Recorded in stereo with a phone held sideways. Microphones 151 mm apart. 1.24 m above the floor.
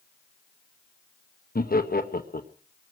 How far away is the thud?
No thud in this recording.